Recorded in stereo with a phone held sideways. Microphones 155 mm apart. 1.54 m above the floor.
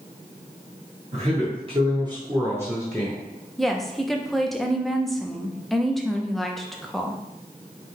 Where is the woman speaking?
Centre (ahead or behind), 0.6 m.